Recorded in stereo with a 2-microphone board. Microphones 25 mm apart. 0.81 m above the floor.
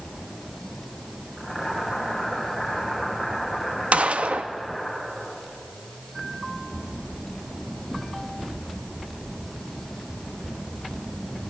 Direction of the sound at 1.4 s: 5° right (ahead or behind).